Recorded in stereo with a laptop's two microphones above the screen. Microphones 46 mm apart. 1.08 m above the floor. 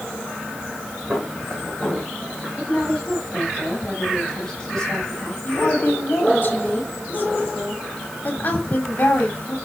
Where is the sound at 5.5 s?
40° left (ahead or behind), 2.5 m.